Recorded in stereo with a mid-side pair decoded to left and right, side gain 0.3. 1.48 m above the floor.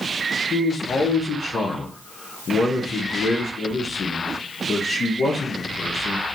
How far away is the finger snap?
No finger snap in this recording.